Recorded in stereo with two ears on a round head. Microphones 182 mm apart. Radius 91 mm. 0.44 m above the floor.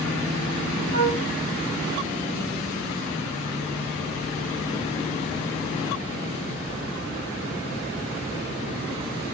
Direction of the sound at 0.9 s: 35° left (ahead or behind).